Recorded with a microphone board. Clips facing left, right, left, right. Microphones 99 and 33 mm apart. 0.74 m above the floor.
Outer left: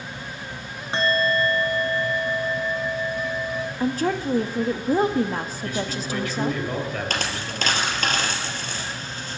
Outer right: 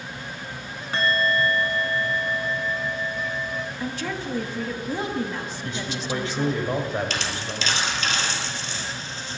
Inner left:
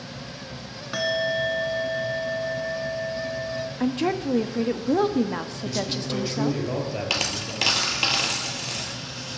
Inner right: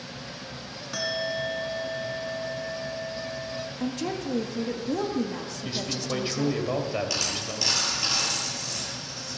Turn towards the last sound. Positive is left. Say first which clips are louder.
# outer left 1 dB, inner left 3 dB
turn(degrees=50)  # may be behind; listen again after turning